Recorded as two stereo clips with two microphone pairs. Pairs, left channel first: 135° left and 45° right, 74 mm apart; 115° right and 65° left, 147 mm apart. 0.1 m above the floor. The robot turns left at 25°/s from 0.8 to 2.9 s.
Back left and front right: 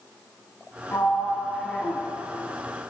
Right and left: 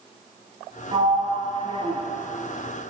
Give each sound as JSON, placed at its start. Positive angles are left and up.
{"t": 0.9, "sound": "a sliding door", "azimuth_deg": 70, "distance_m": 2.0}